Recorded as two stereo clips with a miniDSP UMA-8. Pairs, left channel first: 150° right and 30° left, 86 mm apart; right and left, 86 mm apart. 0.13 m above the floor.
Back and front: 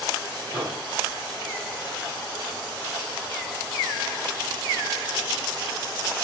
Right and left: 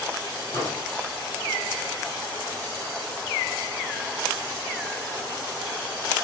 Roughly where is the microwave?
Ahead right.